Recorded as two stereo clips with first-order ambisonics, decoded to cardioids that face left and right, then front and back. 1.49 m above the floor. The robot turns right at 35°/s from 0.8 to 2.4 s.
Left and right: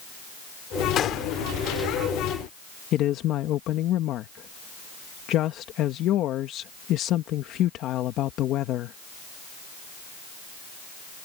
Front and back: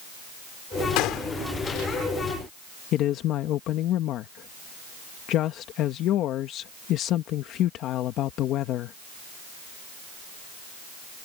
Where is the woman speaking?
45° left.